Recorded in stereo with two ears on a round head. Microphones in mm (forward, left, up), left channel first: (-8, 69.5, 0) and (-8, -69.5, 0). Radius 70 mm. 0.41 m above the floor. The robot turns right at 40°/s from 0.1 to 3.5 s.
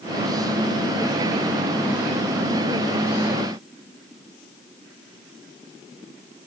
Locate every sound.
Only background noise.